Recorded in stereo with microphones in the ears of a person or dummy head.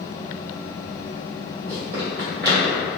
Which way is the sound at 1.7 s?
40° right (ahead or behind).